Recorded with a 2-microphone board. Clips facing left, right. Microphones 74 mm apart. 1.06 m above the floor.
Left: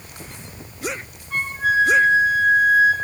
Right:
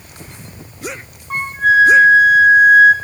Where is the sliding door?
I don't hear a sliding door.